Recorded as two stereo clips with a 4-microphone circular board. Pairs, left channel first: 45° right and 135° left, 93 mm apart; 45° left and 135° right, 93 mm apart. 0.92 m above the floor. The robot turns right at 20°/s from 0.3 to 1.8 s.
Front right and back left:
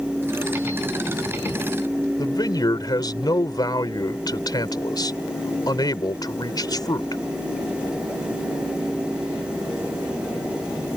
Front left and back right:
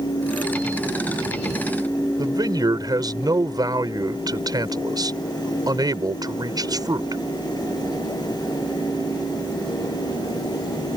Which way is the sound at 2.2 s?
90° right.